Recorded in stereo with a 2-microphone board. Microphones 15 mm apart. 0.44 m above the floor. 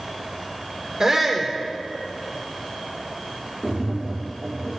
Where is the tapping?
5° right (ahead or behind), 2 m.